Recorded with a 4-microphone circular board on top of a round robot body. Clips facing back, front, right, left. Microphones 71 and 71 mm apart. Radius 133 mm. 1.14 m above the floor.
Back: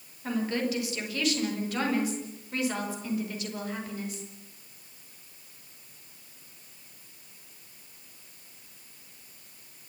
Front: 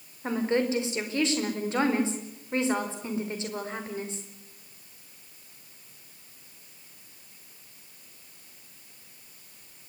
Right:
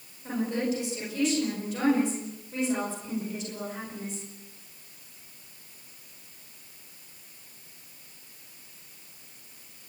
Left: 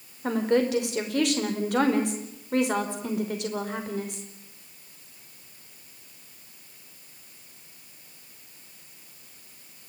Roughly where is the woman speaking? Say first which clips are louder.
Front 3 dB, left 6 dB; ahead left.